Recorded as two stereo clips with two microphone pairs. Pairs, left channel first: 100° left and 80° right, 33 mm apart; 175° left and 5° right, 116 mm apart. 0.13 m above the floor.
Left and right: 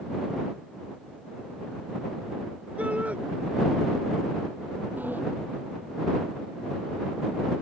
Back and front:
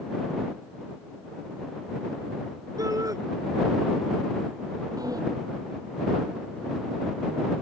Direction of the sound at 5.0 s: 60° right.